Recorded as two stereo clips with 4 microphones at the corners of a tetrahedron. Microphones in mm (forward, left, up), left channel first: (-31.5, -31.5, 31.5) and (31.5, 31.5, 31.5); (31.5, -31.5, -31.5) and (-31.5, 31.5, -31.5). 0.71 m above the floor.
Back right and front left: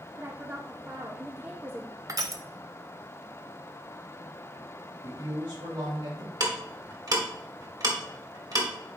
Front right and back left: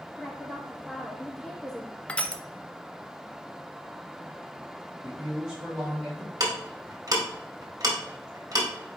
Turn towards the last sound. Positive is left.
turn(degrees=90)